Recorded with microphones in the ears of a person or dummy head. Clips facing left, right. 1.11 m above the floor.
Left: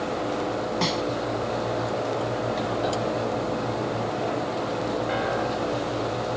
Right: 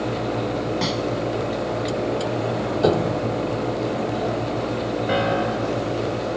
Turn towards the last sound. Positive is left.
turn(degrees=-65)  # may be behind; listen again after turning